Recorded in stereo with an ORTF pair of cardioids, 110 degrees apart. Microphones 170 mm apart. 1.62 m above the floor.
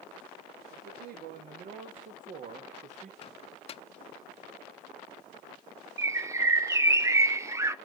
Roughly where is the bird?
Ahead.